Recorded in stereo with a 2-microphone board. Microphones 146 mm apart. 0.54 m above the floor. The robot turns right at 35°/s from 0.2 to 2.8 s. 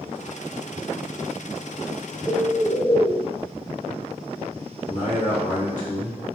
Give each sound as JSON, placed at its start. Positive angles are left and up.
{"t": 2.3, "sound": "a bird", "side_deg": -10, "distance_m": 0.6}
{"t": 4.9, "sound": "a man speaking", "side_deg": 55, "distance_m": 1.5}